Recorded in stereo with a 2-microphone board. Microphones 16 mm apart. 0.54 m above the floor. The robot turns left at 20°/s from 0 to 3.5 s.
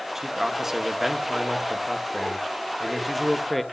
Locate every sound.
0.1 s a man speaking: 25° right (ahead or behind), 1.1 m; by 3.6 s centre (ahead or behind), 1.1 m